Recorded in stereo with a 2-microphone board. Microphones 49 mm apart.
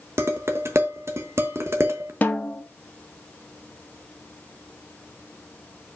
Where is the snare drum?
35° left (ahead or behind), 1.0 m.